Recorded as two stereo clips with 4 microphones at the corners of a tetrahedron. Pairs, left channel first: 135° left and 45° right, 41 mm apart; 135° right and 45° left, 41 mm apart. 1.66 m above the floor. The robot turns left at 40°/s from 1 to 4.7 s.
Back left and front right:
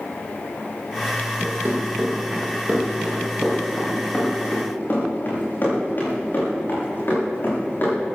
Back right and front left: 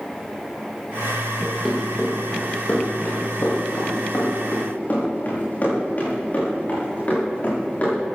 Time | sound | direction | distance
1.4 | running footsteps | 35° right | 6 m